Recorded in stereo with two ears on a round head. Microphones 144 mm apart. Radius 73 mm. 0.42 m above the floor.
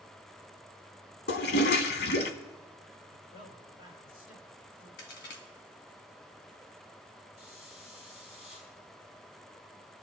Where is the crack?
70° left (ahead or behind), 1.9 m.